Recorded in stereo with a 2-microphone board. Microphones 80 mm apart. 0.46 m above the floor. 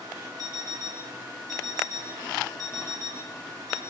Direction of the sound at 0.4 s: 55° right (ahead or behind).